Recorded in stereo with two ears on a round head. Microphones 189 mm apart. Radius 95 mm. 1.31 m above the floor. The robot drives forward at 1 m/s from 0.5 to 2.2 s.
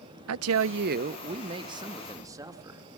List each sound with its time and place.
0.3 s a woman speaking: 75° right (ahead or behind), 0.5 m; by 2.8 s 15° right (ahead or behind), 1.8 m